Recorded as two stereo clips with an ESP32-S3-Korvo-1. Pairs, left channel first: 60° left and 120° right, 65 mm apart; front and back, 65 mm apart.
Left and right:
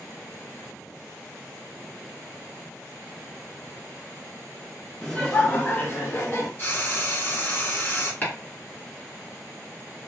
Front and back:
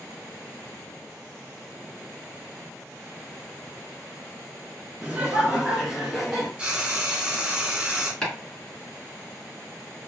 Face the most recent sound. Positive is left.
turn(degrees=65)